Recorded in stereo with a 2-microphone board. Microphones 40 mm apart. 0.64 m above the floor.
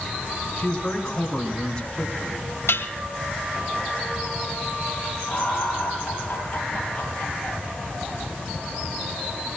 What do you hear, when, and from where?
0.6 s a man speaking: 20° left (ahead or behind), 6 m
2.7 s dishes clattering: 80° left, 2 m
5.3 s laughter: 15° left (ahead or behind), 10 m